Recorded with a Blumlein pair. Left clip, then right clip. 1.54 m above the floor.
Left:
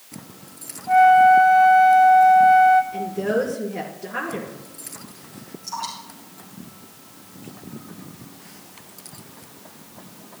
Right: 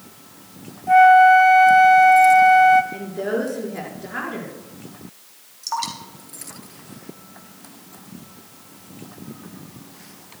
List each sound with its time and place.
0.9 s a flute: 15° right, 0.6 m
2.9 s a woman speaking: 5° right, 4.5 m
5.6 s dripping: 35° right, 2.5 m